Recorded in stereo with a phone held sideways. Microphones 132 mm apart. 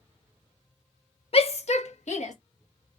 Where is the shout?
50° left (ahead or behind), 0.5 m; by 2.3 s 60° left (ahead or behind), 1.3 m.